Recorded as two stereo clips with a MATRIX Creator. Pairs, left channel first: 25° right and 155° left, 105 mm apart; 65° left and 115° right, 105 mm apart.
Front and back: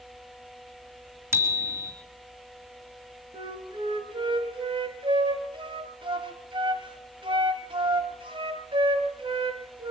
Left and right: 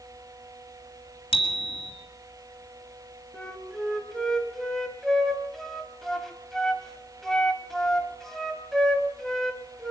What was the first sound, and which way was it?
A bicycle bell, 95° left.